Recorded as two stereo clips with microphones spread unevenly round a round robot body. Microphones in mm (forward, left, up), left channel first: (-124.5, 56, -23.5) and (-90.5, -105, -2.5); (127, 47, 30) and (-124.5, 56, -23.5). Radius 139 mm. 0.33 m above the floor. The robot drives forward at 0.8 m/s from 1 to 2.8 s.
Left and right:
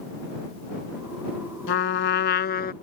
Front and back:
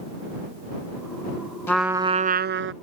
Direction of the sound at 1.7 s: 80° left.